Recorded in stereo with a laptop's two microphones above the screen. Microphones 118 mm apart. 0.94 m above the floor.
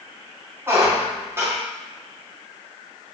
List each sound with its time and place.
0.7 s a squeak: 20° right (ahead or behind), 0.6 m